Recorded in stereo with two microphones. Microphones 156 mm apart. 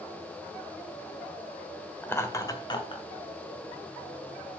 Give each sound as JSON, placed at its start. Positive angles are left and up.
{"t": 2.0, "sound": "laughter", "side_deg": 10, "distance_m": 1.3}